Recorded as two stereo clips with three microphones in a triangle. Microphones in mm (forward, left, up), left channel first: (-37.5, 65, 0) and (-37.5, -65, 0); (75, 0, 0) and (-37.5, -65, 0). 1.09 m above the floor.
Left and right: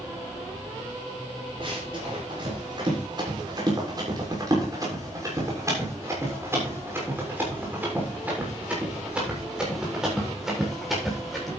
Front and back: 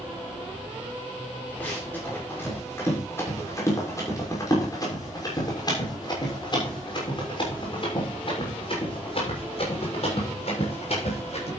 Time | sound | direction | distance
1.6 | running footsteps | 45° right | 6.5 m